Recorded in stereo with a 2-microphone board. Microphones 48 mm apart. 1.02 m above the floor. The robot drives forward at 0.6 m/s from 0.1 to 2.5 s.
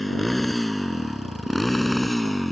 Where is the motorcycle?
Centre (ahead or behind); by 2.5 s 5° left (ahead or behind).